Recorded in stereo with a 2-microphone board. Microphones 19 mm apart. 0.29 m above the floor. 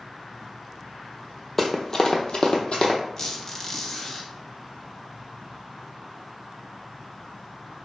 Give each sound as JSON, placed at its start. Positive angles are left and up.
{"t": 1.6, "sound": "running footsteps", "side_deg": 10, "distance_m": 0.6}
{"t": 3.2, "sound": "a squeak", "side_deg": 25, "distance_m": 0.7}